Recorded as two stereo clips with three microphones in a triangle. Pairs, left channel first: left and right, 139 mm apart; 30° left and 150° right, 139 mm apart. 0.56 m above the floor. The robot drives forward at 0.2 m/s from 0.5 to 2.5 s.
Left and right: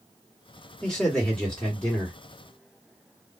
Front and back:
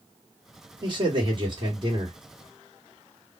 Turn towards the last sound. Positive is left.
turn(degrees=175)